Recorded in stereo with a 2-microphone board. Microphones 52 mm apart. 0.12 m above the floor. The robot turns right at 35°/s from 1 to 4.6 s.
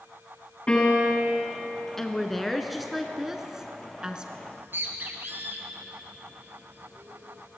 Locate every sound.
0.7 s a piano: 20° left (ahead or behind), 6.5 m; by 1.3 s 30° left (ahead or behind), 6.5 m
2.0 s a woman speaking: 10° left (ahead or behind), 1.1 m; by 4.3 s 15° right (ahead or behind), 1.1 m
4.4 s a bird: 50° right (ahead or behind), 1.7 m; by 7.5 s 45° right (ahead or behind), 1.7 m